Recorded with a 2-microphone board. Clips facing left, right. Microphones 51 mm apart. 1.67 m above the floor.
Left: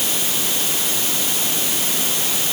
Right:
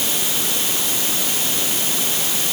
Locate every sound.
Only background noise.